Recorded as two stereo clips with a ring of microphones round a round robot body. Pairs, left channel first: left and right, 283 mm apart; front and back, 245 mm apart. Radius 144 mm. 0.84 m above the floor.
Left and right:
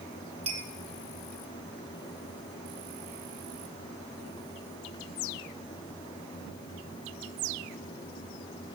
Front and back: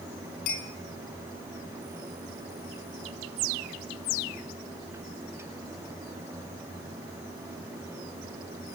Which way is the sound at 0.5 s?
20° right.